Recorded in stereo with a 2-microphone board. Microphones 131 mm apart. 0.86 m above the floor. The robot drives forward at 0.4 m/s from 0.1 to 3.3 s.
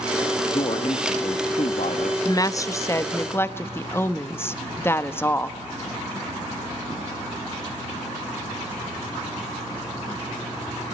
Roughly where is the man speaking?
Left.